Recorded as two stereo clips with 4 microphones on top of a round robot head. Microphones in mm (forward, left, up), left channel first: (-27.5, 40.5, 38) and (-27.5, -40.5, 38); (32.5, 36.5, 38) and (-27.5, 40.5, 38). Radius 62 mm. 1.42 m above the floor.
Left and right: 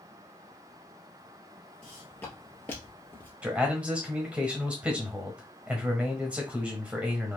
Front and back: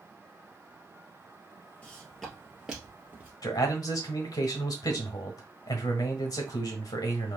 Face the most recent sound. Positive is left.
turn(degrees=-10)